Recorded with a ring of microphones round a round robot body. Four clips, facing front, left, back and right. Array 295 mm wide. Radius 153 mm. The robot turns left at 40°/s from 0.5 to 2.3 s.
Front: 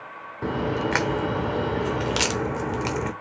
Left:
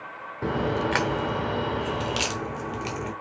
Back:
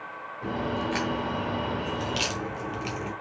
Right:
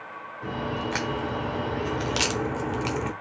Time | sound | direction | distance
0.4 | a crack | 45° left | 1.1 m